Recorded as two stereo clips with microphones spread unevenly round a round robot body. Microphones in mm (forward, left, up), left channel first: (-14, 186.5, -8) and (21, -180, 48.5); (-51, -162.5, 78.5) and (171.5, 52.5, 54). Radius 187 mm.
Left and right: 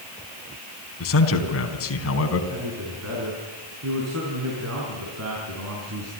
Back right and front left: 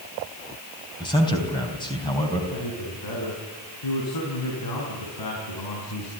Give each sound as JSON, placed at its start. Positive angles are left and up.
{"t": 1.0, "sound": "a man speaking", "azimuth_deg": 145, "distance_m": 3.5}
{"t": 2.5, "sound": "a man speaking", "azimuth_deg": -135, "distance_m": 6.0}